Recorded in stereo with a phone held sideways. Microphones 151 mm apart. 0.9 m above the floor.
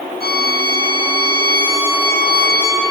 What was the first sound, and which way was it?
A violin, 75° right (ahead or behind).